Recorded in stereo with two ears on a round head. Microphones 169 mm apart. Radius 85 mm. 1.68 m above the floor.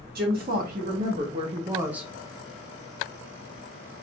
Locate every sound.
0.1 s a woman speaking: 55° right (ahead or behind), 1.2 m; by 2.1 s centre (ahead or behind), 0.5 m